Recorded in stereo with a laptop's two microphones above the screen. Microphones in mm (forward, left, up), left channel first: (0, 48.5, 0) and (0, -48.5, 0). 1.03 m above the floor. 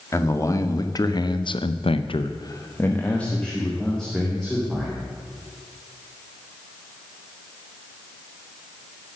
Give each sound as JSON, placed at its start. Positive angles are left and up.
{"t": 0.1, "sound": "a man speaking", "side_deg": 30, "distance_m": 1.9}